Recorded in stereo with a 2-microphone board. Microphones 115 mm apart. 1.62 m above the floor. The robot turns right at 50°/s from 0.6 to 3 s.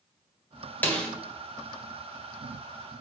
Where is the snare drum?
15° left (ahead or behind), 1.5 m; by 1.1 s 10° left (ahead or behind), 1.5 m.